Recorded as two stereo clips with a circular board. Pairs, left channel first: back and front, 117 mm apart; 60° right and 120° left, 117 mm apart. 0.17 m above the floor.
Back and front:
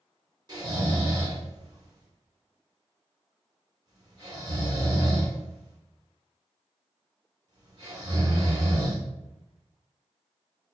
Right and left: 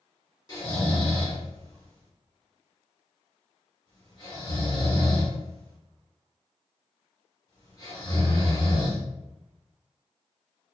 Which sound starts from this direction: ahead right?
Snoring, at 0.5 s.